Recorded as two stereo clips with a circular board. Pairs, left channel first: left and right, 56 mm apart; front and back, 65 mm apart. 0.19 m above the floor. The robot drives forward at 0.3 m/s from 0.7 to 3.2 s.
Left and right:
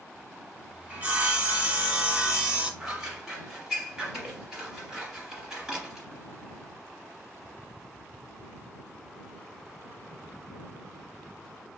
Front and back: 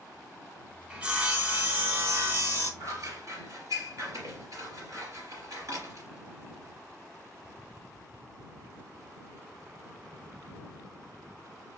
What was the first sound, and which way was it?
Sawing, 120° right.